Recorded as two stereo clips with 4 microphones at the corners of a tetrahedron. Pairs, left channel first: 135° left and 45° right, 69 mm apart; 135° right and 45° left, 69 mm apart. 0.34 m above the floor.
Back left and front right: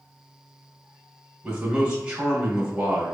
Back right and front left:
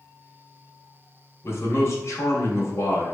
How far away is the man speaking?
About 1.9 m.